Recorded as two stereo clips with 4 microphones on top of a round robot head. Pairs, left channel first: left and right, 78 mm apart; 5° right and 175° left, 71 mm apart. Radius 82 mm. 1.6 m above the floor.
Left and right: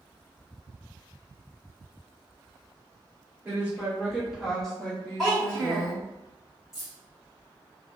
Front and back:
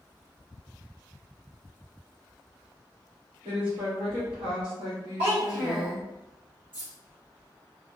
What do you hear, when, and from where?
3.5 s a woman speaking: 160° right, 1.2 m; by 6.0 s 85° left, 0.8 m
5.2 s a child speaking: straight behind, 1.3 m
6.7 s keys jangling: 170° right, 1.1 m